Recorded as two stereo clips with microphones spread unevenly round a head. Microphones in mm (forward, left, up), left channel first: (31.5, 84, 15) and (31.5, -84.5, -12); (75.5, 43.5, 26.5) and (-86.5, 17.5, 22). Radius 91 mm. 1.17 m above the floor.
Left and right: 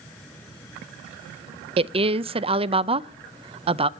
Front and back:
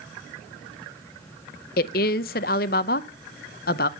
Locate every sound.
1.8 s a woman speaking: 30° right, 0.5 m